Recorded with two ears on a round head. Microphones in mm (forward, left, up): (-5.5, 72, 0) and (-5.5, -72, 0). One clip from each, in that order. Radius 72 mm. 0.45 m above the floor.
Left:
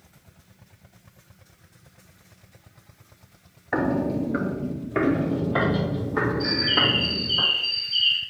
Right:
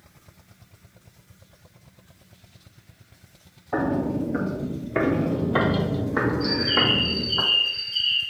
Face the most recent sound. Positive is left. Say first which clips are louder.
# left 1 dB
turn(degrees=40)  # may be behind; listen again after turning